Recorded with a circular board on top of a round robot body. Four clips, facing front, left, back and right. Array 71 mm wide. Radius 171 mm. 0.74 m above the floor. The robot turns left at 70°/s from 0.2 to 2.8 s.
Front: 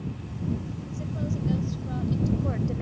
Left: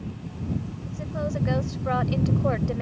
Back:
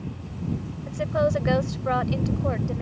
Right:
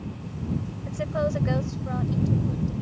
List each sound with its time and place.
0.9 s a woman speaking: 135° right; by 2.8 s 85° left